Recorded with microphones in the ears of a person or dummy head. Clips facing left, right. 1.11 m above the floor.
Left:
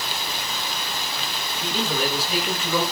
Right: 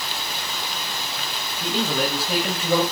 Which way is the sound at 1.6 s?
50° right (ahead or behind).